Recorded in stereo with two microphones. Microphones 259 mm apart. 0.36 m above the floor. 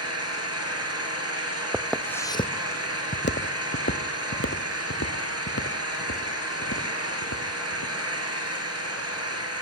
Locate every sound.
0.0 s an engine running: 70° right (ahead or behind), 4 m
1.7 s footsteps: 10° right (ahead or behind), 0.7 m; by 7.9 s 75° left (ahead or behind), 3.5 m